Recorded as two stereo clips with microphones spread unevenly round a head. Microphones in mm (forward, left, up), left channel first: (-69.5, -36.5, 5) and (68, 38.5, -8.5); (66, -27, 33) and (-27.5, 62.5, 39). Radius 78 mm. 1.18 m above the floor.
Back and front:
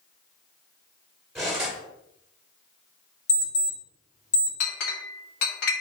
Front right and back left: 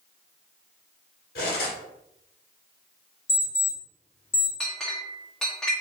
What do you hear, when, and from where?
1.4 s cutlery clinking: 60° right, 1.5 m
3.3 s an alarm clock: 120° right, 1.2 m
4.6 s a clink: 130° right, 0.7 m